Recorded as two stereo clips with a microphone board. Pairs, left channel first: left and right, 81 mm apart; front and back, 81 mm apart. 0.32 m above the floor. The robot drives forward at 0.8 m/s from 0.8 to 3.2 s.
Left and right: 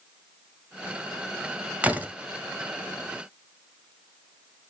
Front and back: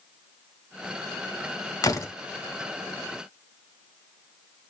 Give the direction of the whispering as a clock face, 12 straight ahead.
I don't hear whispering.